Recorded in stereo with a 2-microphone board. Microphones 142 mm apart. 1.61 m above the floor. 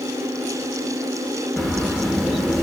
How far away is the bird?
About 1.0 m.